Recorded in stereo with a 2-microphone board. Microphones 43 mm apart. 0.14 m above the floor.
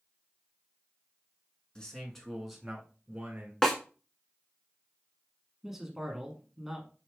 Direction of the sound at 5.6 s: 10° right (ahead or behind).